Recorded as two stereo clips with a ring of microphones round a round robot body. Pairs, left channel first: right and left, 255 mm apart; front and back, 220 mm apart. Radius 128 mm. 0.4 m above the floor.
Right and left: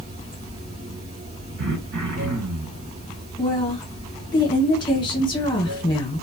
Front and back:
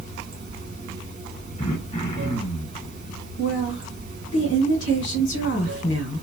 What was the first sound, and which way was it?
Running water, 135° left.